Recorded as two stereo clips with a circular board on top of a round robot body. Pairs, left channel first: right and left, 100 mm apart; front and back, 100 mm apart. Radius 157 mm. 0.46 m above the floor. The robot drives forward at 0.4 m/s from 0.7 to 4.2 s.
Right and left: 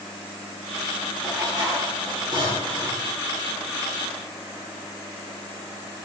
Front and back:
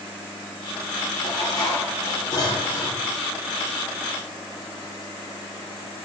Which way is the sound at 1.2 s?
45° left.